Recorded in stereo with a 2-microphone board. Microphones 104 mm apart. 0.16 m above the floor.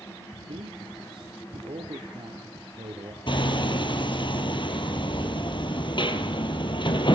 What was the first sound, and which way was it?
A man speaking, 60° right (ahead or behind).